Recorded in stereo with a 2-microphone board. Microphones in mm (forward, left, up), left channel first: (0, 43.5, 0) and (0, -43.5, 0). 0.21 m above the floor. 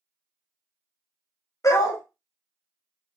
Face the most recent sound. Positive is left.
turn(degrees=35)  # may be behind; listen again after turning